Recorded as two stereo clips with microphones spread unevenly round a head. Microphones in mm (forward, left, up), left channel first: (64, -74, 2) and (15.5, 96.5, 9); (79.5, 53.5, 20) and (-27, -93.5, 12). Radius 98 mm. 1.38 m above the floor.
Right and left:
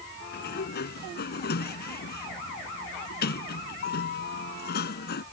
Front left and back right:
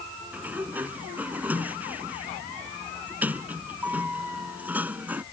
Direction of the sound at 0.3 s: 45° right.